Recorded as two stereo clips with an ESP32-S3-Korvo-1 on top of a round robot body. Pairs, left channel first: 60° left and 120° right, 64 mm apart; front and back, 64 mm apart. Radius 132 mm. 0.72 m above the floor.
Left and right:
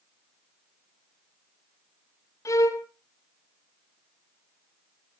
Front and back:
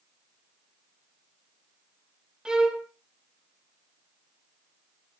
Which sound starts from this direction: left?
A violin, at 2.5 s.